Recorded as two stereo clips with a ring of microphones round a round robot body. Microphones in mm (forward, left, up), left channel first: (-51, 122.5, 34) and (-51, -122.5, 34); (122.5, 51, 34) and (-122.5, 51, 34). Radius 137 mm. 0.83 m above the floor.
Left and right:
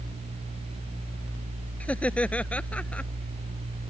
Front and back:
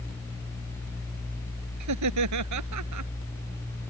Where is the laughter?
175° left.